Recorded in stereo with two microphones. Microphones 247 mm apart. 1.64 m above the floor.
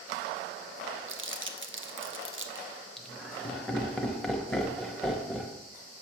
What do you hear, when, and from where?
1.1 s crumpling: 60° right (ahead or behind), 0.5 m
3.0 s laughter: centre (ahead or behind), 0.9 m